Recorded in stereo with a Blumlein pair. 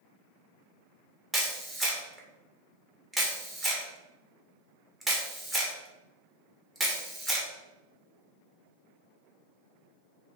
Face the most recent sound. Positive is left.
turn(degrees=-5)